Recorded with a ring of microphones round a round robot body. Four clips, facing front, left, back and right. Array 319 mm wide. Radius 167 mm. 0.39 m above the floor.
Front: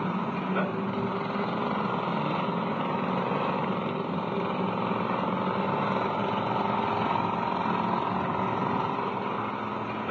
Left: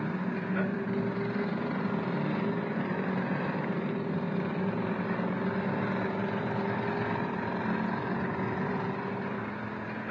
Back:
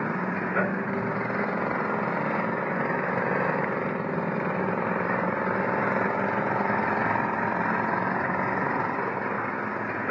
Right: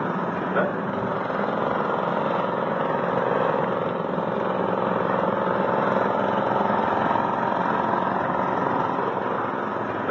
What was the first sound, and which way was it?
An engine running, 100° right.